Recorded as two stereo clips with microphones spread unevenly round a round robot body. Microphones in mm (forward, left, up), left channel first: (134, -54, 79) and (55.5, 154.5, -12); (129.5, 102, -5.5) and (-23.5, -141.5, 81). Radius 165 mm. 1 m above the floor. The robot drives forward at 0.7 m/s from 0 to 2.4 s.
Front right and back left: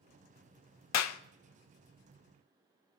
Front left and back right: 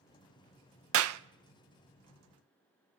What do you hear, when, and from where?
0.9 s a clap: 75° right, 0.6 m; by 1.2 s 95° right, 0.6 m